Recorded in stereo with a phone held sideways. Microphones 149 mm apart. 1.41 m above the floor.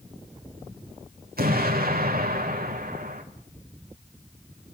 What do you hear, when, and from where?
1.4 s an explosion: 85° right, 3.5 m